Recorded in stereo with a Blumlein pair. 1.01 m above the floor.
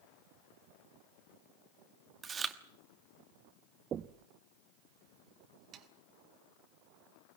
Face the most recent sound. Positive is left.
turn(degrees=-25)